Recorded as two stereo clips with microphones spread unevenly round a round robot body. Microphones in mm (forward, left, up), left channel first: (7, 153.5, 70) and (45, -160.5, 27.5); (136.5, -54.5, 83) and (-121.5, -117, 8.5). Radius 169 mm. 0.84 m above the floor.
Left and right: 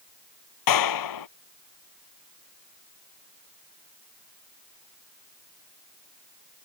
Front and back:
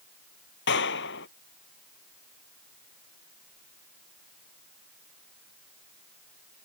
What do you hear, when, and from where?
0.7 s a clap: 70° left